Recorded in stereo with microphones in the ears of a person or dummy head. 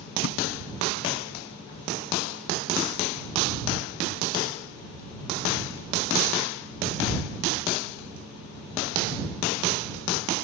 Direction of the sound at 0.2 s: 55° left (ahead or behind).